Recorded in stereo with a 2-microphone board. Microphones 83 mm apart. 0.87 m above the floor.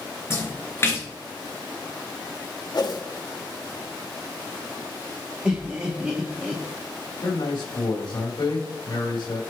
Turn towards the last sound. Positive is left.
turn(degrees=70)  # may be behind; listen again after turning